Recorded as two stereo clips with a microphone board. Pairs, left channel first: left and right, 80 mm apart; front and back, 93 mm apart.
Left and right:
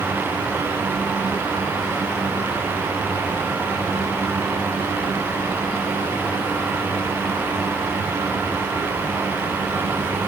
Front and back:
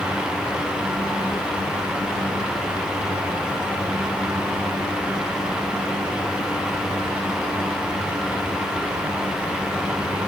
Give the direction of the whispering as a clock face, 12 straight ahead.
I don't hear whispering.